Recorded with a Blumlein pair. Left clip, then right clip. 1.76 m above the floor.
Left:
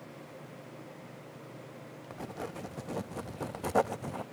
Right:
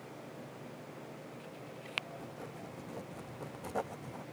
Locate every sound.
2.1 s writing: 25° left